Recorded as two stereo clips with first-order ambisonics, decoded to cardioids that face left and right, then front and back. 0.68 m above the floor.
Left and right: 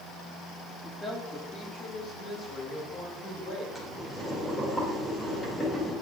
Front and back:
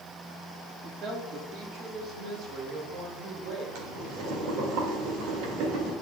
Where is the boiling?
175° left, 2 m.